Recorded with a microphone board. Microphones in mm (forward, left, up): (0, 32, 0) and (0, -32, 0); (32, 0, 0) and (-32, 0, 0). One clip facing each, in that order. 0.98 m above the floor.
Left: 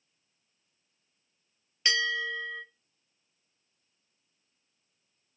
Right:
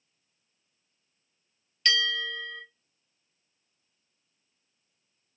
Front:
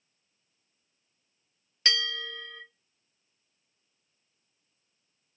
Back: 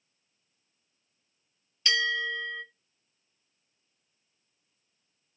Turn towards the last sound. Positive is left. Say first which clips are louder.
# right 1 dB, back 4 dB
turn(degrees=25)